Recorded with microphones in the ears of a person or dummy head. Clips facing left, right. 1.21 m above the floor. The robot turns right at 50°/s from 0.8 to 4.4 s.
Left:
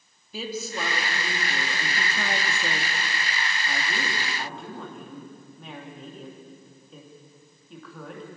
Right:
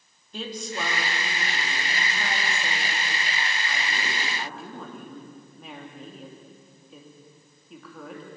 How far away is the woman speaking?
About 3 m.